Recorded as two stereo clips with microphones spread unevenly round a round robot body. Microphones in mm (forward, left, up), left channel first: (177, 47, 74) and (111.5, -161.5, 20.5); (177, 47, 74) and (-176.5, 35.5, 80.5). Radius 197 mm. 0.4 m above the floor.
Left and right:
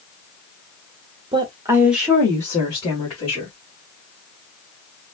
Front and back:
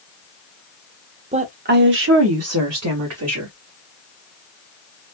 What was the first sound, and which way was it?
A woman speaking, 115° right.